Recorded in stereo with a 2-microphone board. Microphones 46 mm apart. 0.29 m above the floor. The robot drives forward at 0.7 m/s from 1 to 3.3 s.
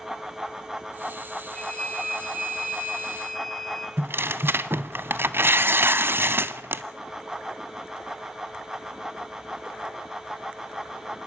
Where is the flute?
10° left (ahead or behind), 7.5 m.